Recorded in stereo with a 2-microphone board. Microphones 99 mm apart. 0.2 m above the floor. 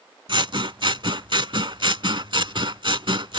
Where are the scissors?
55° right (ahead or behind).